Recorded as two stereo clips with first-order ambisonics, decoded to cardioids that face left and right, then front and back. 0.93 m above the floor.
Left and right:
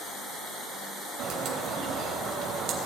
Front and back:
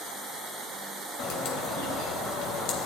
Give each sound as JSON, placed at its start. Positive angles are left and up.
{"t": 1.2, "sound": "a bird", "azimuth_deg": -40, "distance_m": 3.5}